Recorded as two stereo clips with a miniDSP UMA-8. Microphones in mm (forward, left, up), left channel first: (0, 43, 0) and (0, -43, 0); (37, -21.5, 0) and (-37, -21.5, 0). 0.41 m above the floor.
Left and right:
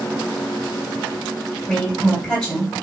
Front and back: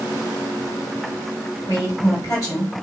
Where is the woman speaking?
10° left, 2 m.